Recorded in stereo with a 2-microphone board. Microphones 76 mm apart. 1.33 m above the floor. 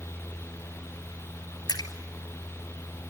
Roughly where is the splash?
Left.